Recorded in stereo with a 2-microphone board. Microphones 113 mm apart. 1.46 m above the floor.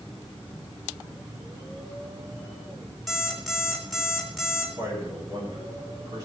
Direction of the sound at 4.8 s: 35° right (ahead or behind).